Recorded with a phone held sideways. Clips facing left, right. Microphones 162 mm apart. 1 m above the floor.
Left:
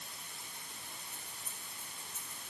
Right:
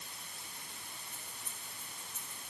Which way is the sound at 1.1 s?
70° right (ahead or behind).